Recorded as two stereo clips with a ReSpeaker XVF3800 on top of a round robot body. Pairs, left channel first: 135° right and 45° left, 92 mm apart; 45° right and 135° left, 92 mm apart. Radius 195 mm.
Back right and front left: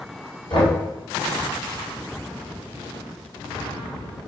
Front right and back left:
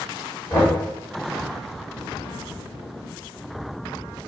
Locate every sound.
0.5 s knocking: 110° right, 2.5 m